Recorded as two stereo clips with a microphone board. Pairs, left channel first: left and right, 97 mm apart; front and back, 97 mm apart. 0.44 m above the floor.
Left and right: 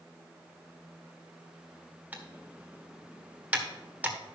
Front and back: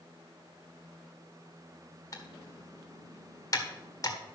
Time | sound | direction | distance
2.1 | typing on a keyboard | 25° right | 1.6 m